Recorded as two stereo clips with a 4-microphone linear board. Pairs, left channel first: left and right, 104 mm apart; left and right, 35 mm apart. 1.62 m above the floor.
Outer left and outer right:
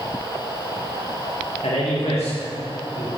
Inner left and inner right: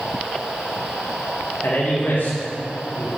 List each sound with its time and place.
1.6 s a man speaking: 85° left, 2.5 m; by 3.1 s 65° left (ahead or behind), 3 m